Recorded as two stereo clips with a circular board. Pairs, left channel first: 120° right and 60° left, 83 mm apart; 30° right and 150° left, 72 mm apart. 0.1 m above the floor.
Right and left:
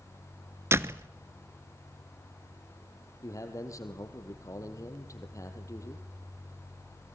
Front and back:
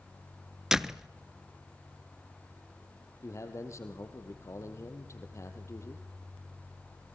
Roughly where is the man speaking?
Right.